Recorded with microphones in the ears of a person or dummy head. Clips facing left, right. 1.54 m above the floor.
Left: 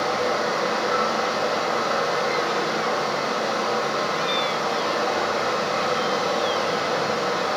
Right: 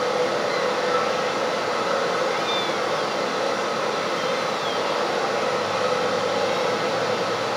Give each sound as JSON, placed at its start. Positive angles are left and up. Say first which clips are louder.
{"t": 0.0, "sound": "running water", "louder": "right 1 dB", "side_deg": -35, "distance_m": 3.0}